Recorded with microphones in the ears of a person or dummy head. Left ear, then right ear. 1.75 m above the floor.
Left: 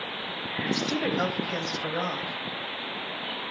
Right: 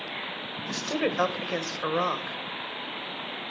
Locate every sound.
0.7 s a woman speaking: 40° right (ahead or behind), 1.5 m